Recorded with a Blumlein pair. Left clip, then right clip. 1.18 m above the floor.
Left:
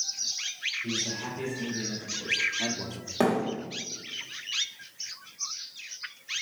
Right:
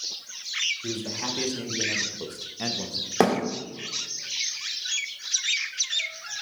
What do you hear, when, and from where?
0.8 s a man speaking: 65° right, 1.8 m; by 3.1 s 15° left, 0.9 m
3.2 s a thud: 25° right, 1.5 m